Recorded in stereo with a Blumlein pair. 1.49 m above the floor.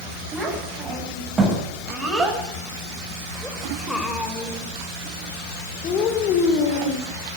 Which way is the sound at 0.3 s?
20° right.